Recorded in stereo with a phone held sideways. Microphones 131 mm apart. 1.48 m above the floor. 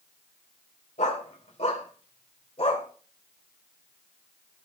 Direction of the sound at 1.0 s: 65° left (ahead or behind).